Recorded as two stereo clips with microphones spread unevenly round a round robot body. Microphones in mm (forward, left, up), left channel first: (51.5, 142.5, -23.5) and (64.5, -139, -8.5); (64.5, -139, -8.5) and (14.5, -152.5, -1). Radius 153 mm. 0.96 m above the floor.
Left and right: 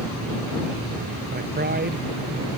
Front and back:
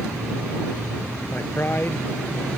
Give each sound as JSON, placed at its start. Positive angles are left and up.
{"t": 1.3, "sound": "a man speaking", "azimuth_deg": -30}